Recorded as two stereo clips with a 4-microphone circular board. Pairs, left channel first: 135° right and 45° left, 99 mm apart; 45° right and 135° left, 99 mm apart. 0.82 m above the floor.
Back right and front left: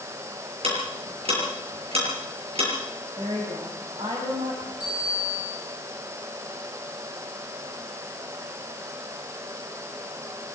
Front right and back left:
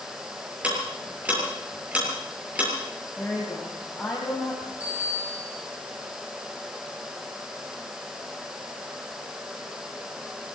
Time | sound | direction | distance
0.6 | ticking | 60° left | 7.5 m
3.2 | a woman speaking | 40° left | 5 m
4.8 | a bicycle bell | 60° left | 10 m